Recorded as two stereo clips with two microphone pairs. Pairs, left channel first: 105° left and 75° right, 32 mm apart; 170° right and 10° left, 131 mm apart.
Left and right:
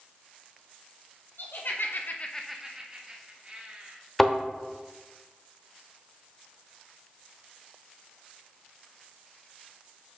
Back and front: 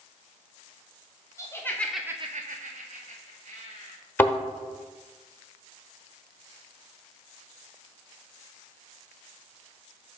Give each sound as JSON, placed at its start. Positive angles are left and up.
{"t": 1.4, "sound": "laughter", "azimuth_deg": 120, "distance_m": 1.5}
{"t": 4.2, "sound": "a thud", "azimuth_deg": 165, "distance_m": 0.9}